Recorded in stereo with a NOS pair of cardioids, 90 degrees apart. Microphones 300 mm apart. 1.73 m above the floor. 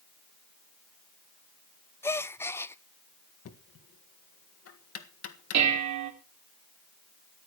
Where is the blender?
I don't hear a blender.